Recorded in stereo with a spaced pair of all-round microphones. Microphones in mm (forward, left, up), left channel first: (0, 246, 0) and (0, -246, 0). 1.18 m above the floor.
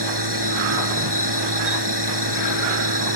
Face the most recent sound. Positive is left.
turn(degrees=-50)  # may be behind; listen again after turning